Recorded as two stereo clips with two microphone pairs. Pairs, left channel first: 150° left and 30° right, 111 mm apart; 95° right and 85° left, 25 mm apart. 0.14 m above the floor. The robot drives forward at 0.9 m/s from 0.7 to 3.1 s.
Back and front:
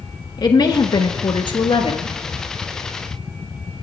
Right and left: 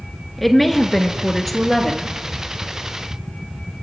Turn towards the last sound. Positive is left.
turn(degrees=180)